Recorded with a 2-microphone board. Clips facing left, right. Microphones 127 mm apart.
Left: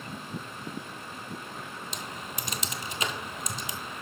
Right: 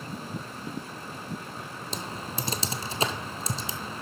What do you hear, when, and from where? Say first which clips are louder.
1.9 s typing on a keyboard: right 7 dB; 35° right (ahead or behind), 0.9 m